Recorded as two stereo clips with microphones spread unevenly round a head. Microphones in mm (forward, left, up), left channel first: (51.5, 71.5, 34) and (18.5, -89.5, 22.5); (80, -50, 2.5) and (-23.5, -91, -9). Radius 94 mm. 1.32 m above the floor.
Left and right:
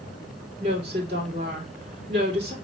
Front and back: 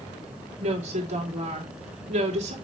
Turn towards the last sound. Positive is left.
turn(degrees=-160)